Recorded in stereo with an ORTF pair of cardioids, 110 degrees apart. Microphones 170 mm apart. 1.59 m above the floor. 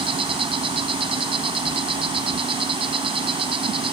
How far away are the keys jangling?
No keys jangling in this recording.